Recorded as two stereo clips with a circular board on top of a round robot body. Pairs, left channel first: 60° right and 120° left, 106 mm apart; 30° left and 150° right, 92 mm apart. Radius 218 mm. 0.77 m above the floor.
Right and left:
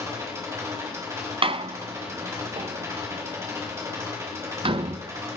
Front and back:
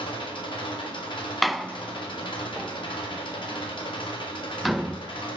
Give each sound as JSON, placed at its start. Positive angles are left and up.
{"t": 0.0, "sound": "an engine running", "azimuth_deg": 55, "distance_m": 1.5}
{"t": 1.4, "sound": "a door slam", "azimuth_deg": 120, "distance_m": 0.5}